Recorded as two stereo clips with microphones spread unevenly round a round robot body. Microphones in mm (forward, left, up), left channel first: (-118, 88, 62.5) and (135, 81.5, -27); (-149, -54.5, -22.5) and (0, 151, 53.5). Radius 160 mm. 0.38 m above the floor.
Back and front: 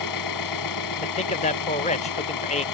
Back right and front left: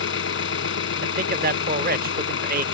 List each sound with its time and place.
0.0 s an engine running: 155° right
1.0 s a man speaking: 105° left